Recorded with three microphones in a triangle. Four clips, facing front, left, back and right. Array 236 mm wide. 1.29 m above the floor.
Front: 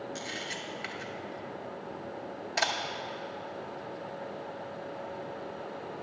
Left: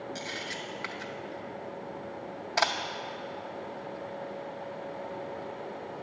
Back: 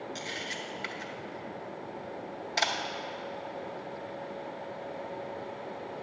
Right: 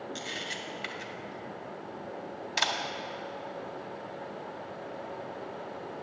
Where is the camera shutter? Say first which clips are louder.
Left 1 dB, even; 95° left, 0.6 m.